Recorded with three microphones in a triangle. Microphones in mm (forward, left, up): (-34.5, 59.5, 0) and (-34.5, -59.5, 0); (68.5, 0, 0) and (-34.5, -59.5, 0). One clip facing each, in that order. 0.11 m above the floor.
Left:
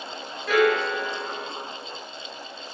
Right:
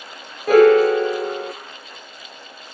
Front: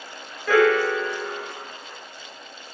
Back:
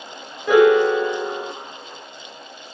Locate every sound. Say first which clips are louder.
0.5 s a piano: right 10 dB, back 5 dB; 85° right, 0.9 m